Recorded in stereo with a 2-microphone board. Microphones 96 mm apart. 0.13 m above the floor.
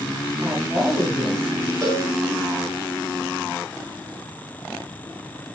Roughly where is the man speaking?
Centre.